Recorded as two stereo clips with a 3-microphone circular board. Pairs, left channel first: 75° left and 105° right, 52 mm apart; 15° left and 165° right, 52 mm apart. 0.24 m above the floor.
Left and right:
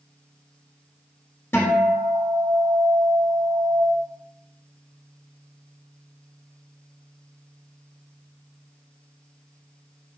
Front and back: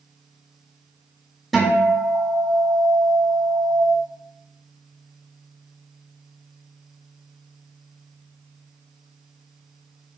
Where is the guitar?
100° left, 0.5 m.